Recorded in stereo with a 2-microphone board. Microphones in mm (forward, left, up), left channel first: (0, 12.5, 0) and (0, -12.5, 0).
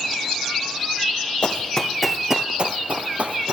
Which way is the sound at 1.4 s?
45° left (ahead or behind).